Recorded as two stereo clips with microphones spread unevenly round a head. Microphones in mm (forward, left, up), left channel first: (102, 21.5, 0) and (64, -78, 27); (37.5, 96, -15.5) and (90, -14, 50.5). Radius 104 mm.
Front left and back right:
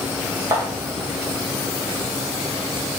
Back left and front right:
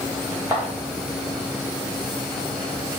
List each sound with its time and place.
0.5 s footsteps: 95° right, 1.9 m